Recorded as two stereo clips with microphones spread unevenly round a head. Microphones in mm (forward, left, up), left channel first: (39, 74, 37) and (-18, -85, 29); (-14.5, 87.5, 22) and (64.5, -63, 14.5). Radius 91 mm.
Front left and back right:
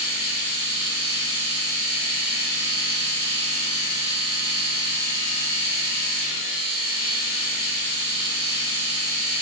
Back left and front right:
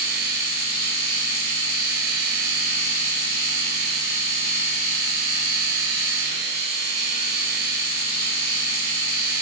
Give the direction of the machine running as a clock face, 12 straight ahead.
2 o'clock.